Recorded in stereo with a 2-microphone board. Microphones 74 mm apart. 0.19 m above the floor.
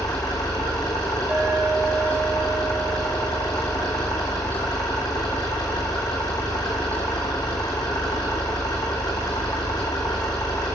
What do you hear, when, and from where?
0.0 s an engine running: 60° left (ahead or behind), 3 m
1.3 s a clink: 20° right (ahead or behind), 1.0 m